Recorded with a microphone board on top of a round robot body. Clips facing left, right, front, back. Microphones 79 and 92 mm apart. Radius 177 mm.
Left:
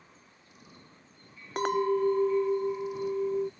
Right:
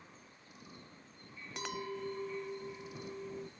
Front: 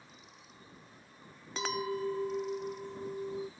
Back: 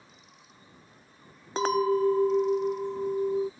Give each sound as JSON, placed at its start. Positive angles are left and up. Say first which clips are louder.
{"t": 1.6, "sound": "a clink", "louder": "left 15 dB, back 11 dB", "azimuth_deg": 130}